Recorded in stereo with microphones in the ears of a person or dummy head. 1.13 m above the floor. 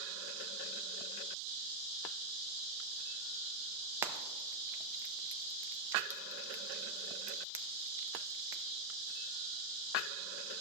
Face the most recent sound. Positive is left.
turn(degrees=-15)  # may be behind; listen again after turning